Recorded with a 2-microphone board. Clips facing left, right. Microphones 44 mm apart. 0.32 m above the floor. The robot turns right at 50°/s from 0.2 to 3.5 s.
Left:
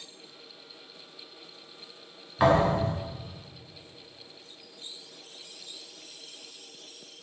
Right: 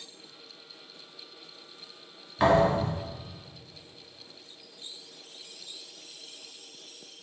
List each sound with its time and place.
2.4 s a thud: 10° left (ahead or behind), 1.2 m; by 2.9 s 35° left (ahead or behind), 1.2 m